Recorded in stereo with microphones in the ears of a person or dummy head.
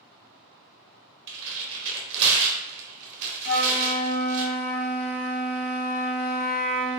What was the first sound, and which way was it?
Tearing paper, 70° right (ahead or behind).